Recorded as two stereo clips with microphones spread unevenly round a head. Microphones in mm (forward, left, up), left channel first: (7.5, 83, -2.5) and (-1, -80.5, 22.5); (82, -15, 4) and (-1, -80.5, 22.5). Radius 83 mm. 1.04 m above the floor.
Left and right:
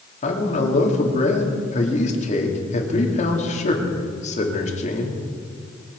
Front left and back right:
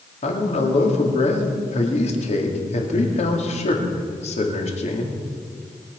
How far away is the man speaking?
About 2.5 m.